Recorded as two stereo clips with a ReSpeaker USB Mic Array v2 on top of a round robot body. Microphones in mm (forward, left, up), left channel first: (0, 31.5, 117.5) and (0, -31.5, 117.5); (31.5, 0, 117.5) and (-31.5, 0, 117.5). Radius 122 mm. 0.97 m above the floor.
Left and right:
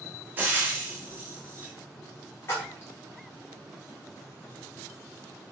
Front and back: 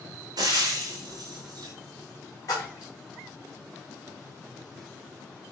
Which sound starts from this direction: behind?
Frying, at 0.4 s.